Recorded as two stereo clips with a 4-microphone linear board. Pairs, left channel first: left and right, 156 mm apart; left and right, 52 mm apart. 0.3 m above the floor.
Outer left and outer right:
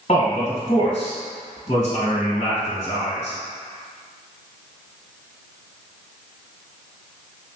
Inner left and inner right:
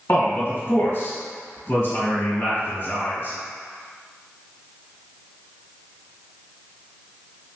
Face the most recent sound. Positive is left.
turn(degrees=40)  # may be behind; listen again after turning